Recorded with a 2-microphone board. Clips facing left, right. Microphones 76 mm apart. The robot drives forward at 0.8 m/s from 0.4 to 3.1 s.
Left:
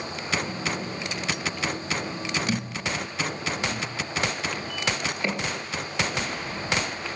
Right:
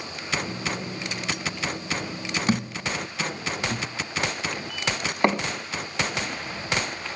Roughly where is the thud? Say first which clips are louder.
Right 3 dB; right.